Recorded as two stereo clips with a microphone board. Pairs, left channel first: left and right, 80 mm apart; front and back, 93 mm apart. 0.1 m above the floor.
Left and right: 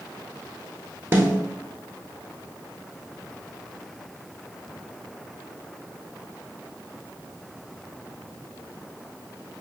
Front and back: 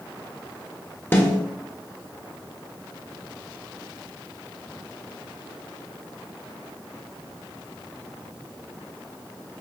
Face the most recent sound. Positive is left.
turn(degrees=-50)